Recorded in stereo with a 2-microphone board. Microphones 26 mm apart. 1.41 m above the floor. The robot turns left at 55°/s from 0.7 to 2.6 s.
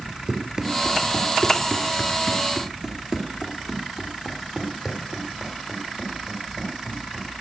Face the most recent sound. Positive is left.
turn(degrees=-35)  # may be behind; listen again after turning